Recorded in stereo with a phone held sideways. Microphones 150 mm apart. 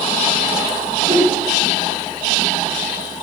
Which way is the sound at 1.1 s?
40° right (ahead or behind).